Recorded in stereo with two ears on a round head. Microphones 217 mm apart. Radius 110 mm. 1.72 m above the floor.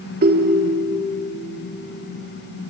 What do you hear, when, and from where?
0.2 s a ringtone: 40° right (ahead or behind), 1.7 m